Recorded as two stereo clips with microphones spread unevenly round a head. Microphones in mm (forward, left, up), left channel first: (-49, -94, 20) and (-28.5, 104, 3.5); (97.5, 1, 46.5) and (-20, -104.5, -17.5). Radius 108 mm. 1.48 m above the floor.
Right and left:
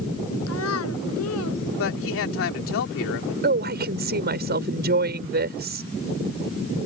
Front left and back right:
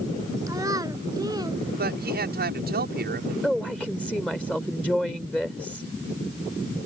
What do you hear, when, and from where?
0.5 s a child speaking: 65° right; by 1.6 s 70° right
1.8 s a man speaking: 110° right
3.4 s a woman speaking: 125° left